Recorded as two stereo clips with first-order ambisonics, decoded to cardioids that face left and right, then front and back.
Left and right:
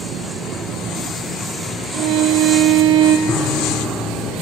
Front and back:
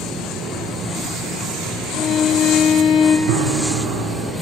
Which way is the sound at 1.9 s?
65° right.